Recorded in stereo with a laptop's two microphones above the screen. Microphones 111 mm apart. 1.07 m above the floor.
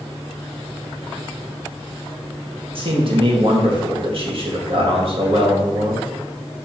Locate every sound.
2.8 s a man speaking: 55° right (ahead or behind), 1.5 m